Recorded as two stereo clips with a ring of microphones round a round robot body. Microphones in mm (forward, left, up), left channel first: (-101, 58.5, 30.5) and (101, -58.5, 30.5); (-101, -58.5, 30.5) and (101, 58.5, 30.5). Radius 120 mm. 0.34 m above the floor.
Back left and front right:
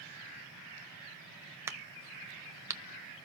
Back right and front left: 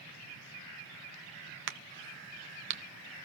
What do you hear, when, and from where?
1.7 s a crack: 45° left, 1.0 m